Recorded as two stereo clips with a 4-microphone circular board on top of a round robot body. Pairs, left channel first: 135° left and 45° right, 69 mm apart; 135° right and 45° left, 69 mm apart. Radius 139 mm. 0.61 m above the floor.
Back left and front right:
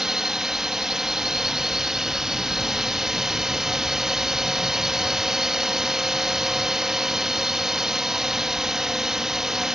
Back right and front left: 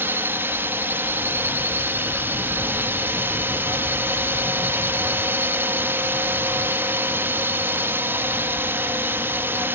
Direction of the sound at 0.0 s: 35° left.